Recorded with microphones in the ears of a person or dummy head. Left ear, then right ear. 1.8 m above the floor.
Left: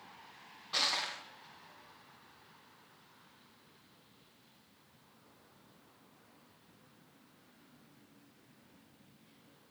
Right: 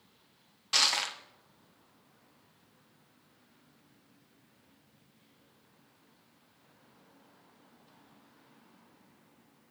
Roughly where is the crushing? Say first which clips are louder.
Right 6 dB; right.